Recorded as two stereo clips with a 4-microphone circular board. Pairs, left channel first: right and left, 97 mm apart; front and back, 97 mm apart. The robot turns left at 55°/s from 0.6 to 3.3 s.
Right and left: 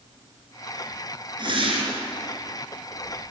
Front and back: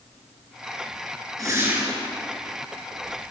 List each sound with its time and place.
1.4 s a whoosh: 125° left, 3.5 m; by 2.0 s 90° left, 3.5 m